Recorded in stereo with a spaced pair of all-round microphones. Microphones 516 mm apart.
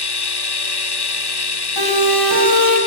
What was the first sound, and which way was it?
A machine running, 50° left (ahead or behind).